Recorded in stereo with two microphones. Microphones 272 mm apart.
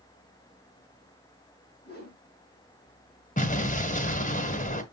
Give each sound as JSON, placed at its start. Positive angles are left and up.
{"t": 1.8, "sound": "a whoosh", "side_deg": 35, "distance_m": 4.0}
{"t": 3.4, "sound": "an explosion", "side_deg": 30, "distance_m": 1.4}